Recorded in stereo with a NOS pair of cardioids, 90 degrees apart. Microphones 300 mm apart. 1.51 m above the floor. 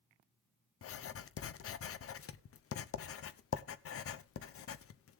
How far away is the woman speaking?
I don't hear a woman speaking.